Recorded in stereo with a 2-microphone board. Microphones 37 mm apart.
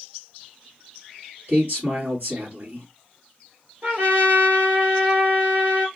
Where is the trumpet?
55° right (ahead or behind), 1.5 m.